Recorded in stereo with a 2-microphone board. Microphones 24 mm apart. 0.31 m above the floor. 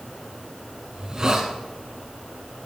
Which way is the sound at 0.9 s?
25° right (ahead or behind).